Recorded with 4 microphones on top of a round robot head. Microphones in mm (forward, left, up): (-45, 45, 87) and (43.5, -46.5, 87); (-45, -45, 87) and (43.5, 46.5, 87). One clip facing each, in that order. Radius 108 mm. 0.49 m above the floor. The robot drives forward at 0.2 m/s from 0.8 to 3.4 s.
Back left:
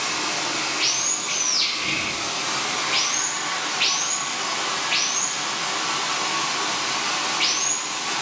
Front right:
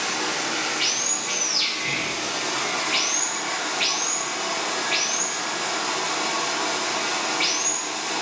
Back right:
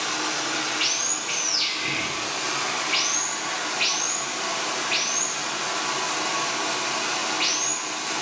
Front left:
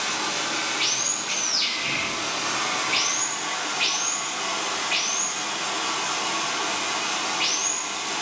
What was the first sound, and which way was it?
Running water, 50° right.